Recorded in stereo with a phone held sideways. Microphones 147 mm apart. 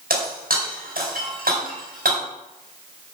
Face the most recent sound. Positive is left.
turn(degrees=-85)